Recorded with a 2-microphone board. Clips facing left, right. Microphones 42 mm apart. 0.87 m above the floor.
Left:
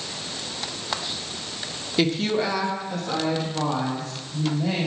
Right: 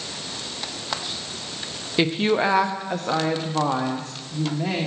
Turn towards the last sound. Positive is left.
turn(degrees=-75)  # may be behind; listen again after turning